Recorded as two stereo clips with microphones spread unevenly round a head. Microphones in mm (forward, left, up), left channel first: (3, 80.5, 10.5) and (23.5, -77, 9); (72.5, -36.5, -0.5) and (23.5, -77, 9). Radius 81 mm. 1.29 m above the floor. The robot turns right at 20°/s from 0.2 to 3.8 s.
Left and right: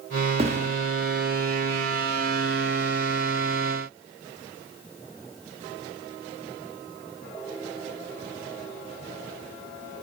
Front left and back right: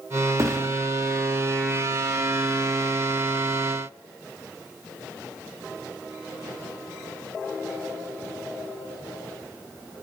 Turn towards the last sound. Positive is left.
turn(degrees=-65)